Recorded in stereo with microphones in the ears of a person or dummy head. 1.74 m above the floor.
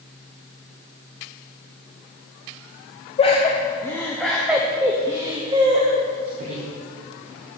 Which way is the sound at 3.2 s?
35° left (ahead or behind).